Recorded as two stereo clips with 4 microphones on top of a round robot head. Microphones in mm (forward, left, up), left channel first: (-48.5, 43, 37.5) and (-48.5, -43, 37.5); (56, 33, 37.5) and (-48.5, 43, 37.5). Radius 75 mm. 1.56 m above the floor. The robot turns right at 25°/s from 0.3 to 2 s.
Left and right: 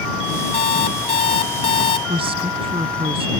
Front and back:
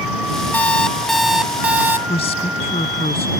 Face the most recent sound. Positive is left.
turn(degrees=-50)